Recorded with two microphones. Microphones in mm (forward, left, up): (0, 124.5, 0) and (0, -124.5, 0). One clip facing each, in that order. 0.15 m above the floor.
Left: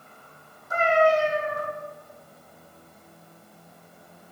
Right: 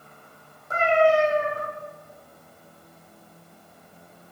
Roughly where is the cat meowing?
Right.